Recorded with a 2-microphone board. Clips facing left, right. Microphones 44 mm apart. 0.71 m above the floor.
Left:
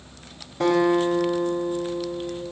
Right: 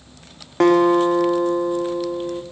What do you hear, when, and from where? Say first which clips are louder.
0.6 s a guitar: right 5 dB; 60° right (ahead or behind), 1.5 m